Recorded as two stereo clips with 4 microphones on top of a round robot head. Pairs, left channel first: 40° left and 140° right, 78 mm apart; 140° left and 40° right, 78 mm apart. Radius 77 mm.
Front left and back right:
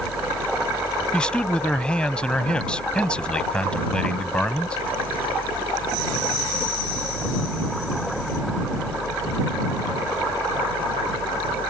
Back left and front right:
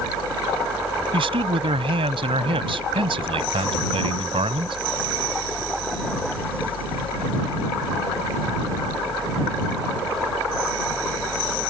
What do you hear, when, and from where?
1.1 s a man speaking: 40° right